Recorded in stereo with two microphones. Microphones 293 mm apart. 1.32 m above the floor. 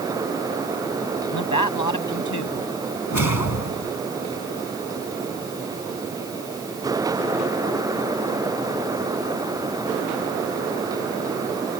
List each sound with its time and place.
1.3 s a man speaking: 85° left
3.1 s a whoosh: 70° left (ahead or behind)